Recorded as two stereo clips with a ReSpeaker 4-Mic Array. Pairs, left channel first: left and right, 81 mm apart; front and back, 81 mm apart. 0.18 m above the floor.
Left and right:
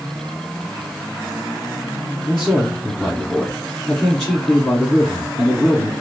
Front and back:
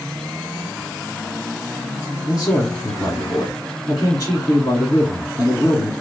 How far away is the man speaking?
About 1.3 m.